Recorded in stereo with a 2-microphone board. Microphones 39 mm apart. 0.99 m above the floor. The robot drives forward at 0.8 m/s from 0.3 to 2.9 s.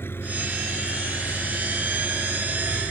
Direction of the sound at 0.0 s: 80° left.